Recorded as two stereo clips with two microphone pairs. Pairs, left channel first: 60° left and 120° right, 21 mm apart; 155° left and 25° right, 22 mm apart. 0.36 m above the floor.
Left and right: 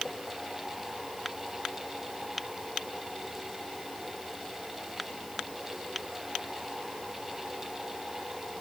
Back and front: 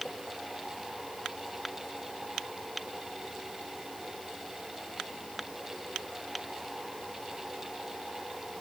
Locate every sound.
Only background noise.